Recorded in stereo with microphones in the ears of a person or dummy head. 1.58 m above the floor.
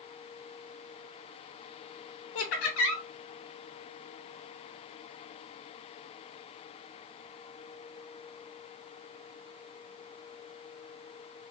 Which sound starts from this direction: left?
Laughter, at 2.4 s.